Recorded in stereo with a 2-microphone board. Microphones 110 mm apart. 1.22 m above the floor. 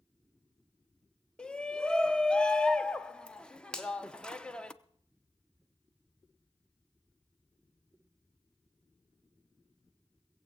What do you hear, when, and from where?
1.4 s a shout: 10° left (ahead or behind), 1.0 m
3.7 s a finger snap: 5° left (ahead or behind), 2 m